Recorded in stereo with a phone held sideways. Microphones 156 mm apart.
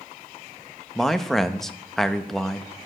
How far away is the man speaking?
About 0.6 m.